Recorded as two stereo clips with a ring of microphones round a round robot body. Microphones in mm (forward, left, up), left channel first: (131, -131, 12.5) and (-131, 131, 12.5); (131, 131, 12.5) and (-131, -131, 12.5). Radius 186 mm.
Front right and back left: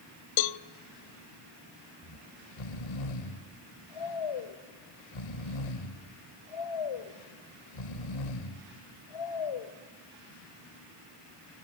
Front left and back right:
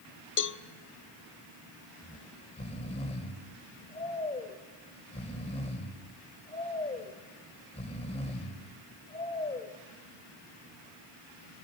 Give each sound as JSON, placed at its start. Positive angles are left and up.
{"t": 0.4, "sound": "a cowbell", "azimuth_deg": -15, "distance_m": 0.6}
{"t": 2.0, "sound": "snoring", "azimuth_deg": -30, "distance_m": 1.8}